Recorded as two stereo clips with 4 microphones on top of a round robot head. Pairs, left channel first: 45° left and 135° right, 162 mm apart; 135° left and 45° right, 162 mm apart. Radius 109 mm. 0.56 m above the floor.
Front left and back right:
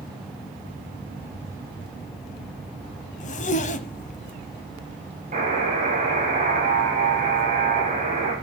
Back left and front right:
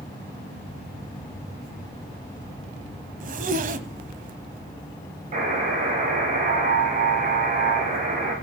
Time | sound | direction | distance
3.2 | a zipper | straight ahead | 0.9 m
5.3 | a buzzer | 85° right | 4.5 m